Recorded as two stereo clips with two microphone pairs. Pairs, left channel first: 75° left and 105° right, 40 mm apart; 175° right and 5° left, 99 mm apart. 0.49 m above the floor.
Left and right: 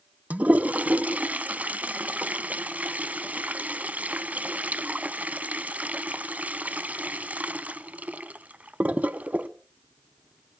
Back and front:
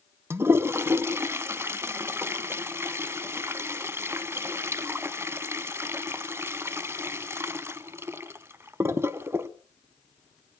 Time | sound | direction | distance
0.3 | a toilet flushing | 60° right | 0.8 m